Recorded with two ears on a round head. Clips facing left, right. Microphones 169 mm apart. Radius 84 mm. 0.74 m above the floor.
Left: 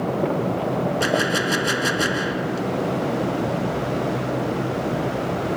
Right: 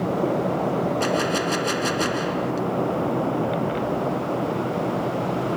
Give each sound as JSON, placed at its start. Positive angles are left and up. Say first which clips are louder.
{"t": 1.0, "sound": "a gunshot", "louder": "left 1 dB", "side_deg": 10}